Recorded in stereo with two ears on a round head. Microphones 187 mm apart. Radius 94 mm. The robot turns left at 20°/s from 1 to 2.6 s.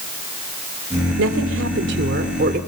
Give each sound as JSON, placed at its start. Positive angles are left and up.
{"t": 1.2, "sound": "a woman speaking", "side_deg": -75, "distance_m": 2.5}